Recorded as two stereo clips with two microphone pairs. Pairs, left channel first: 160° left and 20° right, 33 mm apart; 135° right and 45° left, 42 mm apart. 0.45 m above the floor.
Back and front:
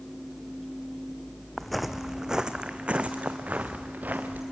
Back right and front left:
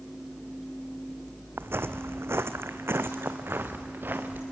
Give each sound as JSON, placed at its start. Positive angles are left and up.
{"t": 1.6, "sound": "footsteps", "azimuth_deg": 75, "distance_m": 1.1}